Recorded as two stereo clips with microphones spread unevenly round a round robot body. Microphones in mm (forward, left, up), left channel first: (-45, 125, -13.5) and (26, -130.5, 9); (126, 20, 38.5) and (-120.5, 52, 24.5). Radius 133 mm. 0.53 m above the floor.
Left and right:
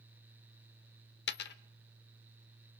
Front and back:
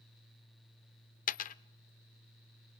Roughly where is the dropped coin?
Ahead left.